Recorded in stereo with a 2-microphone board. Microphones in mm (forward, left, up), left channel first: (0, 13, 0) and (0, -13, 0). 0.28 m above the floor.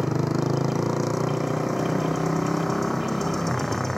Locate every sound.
0.0 s a motorcycle: 10° right (ahead or behind); by 4.0 s 5° left (ahead or behind)